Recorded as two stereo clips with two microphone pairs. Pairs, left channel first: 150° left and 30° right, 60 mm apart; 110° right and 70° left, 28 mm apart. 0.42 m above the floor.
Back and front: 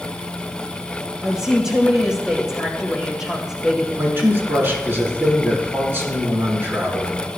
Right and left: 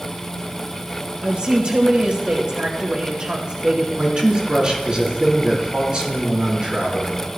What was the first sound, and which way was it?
A woman speaking, 45° left.